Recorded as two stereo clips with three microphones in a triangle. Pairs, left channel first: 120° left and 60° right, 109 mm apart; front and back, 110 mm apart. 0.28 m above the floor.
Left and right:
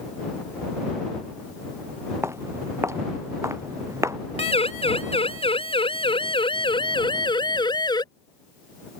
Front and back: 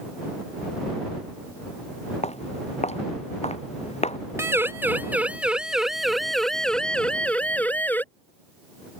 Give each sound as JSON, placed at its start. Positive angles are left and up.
{"t": 2.2, "sound": "footsteps", "azimuth_deg": 5}
{"t": 4.4, "sound": "a siren", "azimuth_deg": 115}